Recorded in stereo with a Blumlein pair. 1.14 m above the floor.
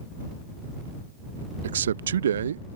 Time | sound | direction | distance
1.6 | a man speaking | 65° right | ?